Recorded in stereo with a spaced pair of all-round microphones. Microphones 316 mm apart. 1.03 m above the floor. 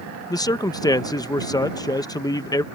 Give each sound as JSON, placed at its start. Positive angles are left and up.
{"t": 0.3, "sound": "a man speaking", "side_deg": 10}